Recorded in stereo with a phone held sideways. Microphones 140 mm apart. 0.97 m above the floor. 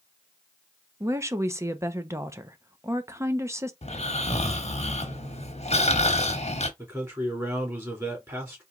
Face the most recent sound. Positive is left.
turn(degrees=-20)  # may be behind; listen again after turning